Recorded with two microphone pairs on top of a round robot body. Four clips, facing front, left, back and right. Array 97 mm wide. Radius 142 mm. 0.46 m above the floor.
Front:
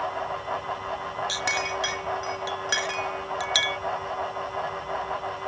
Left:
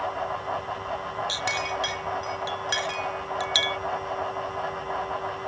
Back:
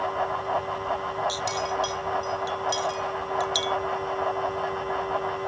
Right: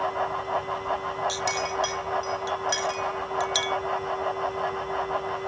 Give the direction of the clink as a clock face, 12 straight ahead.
12 o'clock.